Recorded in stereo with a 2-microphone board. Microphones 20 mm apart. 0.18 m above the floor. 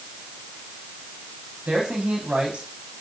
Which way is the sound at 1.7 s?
75° right (ahead or behind).